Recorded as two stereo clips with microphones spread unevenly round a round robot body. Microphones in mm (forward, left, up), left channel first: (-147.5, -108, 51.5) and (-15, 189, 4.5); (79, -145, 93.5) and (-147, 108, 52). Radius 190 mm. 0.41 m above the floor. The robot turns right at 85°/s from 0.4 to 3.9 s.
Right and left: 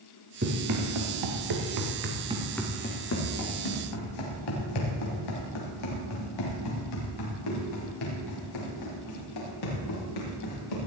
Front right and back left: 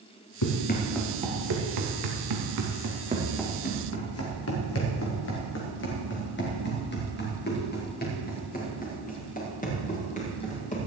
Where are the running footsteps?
5° right, 3 m; by 10.8 s 115° right, 7 m.